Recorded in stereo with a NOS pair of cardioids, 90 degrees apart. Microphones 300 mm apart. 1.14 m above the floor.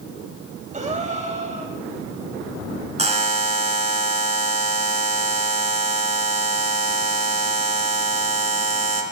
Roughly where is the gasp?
Ahead right.